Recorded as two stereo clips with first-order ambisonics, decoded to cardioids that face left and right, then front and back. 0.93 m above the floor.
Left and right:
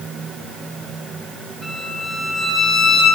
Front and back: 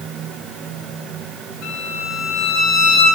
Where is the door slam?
No door slam in this recording.